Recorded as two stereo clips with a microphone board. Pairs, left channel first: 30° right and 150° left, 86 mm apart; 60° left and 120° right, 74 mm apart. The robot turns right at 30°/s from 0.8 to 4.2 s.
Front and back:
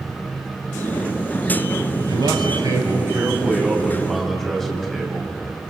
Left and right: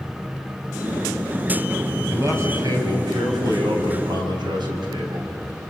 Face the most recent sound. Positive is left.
turn(degrees=-115)